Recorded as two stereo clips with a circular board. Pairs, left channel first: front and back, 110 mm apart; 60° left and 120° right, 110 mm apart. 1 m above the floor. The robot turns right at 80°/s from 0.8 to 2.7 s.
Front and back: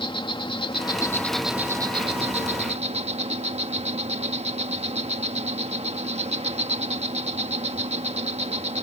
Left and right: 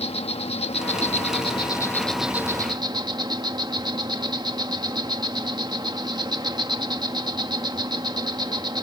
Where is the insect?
40° left; by 8.8 s 165° right.